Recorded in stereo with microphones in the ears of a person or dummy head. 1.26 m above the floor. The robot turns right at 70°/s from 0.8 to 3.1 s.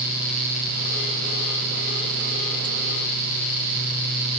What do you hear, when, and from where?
Only background noise.